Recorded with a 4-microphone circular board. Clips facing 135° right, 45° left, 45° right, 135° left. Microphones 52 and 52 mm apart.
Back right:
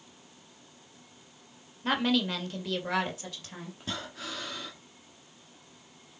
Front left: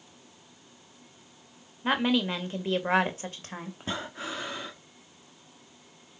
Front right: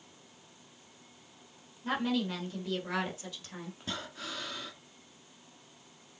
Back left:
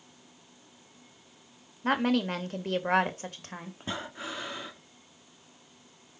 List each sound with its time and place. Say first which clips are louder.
1.8 s a woman speaking: front left 2 dB, back left 5 dB; 120° left, 1.8 m; by 3.7 s 90° left, 2 m
3.8 s breathing: front left 3 dB, back left 5 dB; 90° left, 1.0 m